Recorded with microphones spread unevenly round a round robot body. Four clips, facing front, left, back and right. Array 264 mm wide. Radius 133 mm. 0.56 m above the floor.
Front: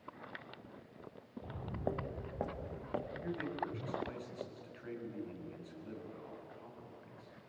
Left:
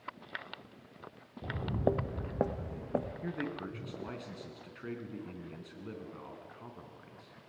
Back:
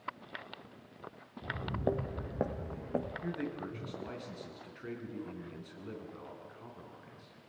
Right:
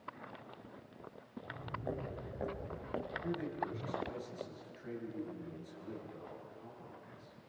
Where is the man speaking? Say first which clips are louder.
Even, back 1 dB; 110° left, 6 m.